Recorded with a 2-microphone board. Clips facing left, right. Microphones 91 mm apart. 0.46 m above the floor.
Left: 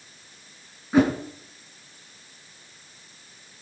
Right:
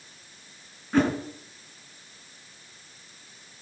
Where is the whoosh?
10° left (ahead or behind), 3 m.